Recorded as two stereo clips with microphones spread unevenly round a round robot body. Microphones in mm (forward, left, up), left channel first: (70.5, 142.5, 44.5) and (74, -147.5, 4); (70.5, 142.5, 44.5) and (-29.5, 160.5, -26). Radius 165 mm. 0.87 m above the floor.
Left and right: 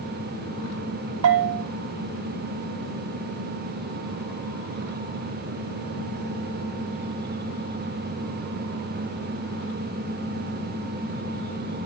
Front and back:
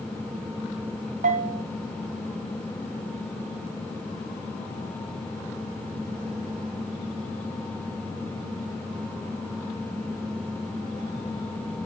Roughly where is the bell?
Behind right.